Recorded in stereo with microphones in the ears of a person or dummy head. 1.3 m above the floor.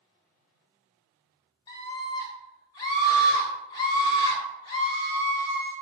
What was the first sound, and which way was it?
A scream, 25° left (ahead or behind).